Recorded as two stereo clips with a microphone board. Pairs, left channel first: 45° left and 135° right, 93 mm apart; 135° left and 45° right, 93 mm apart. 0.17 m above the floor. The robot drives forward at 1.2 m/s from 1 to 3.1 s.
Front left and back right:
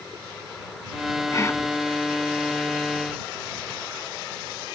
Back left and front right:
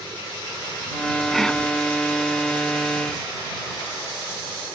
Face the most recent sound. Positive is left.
turn(degrees=155)